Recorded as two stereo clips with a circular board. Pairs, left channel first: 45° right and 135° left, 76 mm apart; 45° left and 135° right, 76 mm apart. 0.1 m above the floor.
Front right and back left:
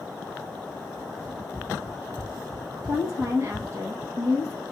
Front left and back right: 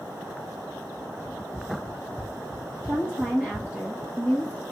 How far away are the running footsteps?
About 2 m.